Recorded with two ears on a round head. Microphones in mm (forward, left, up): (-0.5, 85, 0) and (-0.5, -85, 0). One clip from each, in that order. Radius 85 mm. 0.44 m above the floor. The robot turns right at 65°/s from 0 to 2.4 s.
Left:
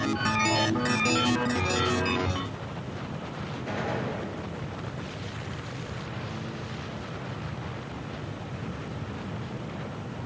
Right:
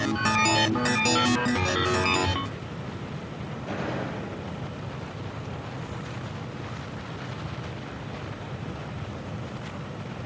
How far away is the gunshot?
About 7.5 m.